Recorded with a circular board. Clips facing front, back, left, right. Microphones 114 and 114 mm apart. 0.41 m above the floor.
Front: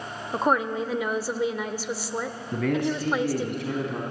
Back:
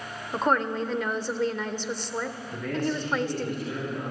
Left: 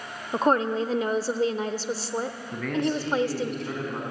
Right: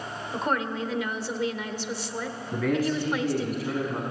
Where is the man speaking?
5° right, 3.5 m.